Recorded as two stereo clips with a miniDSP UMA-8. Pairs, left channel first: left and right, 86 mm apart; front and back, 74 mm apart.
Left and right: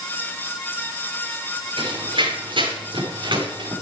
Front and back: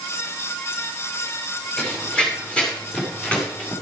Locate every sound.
1.8 s running footsteps: 75° right, 7 m; by 3.7 s 70° right, 5.5 m